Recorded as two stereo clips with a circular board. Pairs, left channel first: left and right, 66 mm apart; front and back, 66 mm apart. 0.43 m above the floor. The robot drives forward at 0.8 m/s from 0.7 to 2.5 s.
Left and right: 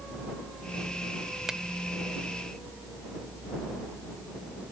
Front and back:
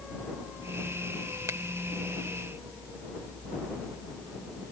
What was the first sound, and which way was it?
A finger snap, 170° right.